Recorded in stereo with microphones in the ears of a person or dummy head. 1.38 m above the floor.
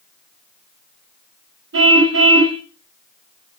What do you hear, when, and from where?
1.7 s a car horn: 75° right (ahead or behind), 3.5 m